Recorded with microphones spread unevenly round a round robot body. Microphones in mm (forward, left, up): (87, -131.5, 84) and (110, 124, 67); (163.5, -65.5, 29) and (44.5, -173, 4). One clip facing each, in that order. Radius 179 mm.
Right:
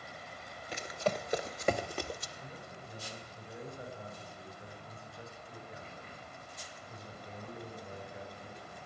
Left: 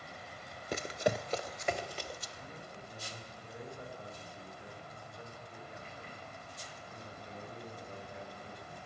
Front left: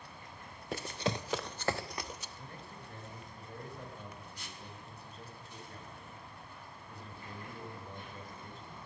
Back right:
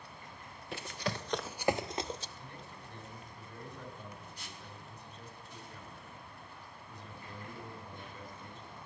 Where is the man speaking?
15° right, 6 m.